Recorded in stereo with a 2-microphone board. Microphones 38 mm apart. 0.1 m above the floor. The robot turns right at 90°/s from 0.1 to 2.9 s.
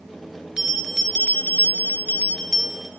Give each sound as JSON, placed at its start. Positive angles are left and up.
{"t": 0.6, "sound": "a bell", "azimuth_deg": -25, "distance_m": 0.8}